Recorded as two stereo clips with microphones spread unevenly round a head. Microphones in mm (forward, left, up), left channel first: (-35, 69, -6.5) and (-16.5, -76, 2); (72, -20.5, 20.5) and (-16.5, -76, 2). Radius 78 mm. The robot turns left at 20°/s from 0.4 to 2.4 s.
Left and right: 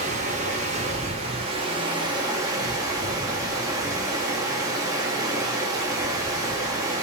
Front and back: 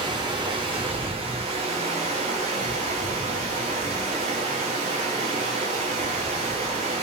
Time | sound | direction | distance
0.0 | running water | 105° right | 1.2 m